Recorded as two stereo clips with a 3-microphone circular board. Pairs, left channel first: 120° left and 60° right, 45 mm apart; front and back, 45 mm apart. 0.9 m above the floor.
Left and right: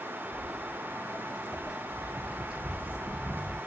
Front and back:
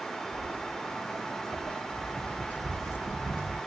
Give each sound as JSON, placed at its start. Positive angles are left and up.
{"t": 0.3, "sound": "footsteps", "azimuth_deg": 140, "distance_m": 0.9}